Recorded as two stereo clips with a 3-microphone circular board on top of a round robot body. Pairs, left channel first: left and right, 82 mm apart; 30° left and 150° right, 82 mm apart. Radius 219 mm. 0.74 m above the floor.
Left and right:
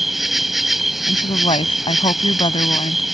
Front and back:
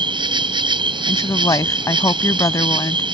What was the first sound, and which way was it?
An insect, straight behind.